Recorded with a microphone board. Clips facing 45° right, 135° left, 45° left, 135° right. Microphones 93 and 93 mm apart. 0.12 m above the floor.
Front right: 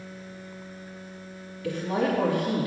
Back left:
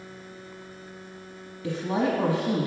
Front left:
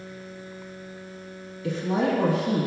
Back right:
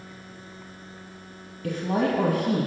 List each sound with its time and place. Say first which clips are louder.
1.6 s a woman speaking: even, even; 160° right, 3 m